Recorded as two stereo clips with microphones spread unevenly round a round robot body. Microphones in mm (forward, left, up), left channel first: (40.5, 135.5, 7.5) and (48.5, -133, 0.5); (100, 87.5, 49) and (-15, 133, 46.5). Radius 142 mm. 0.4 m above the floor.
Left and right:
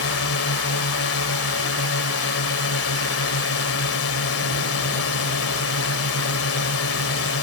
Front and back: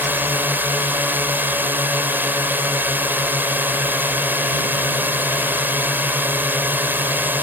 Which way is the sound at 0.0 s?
90° left.